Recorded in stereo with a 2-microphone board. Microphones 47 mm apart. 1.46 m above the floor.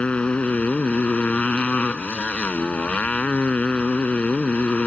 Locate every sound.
0.0 s a motorcycle: 25° left (ahead or behind)